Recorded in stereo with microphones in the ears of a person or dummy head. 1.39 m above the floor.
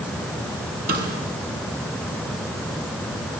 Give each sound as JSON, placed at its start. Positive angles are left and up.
{"t": 0.9, "sound": "a snare drum", "side_deg": -55, "distance_m": 6.5}